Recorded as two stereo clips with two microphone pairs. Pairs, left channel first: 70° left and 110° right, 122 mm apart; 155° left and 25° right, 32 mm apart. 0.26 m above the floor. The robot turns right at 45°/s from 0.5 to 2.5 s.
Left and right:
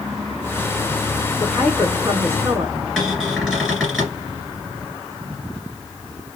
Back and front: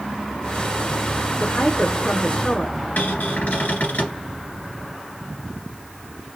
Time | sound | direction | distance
1.4 | a woman speaking | 155° left | 2.5 m
3.0 | a cupboard door | 165° left | 2 m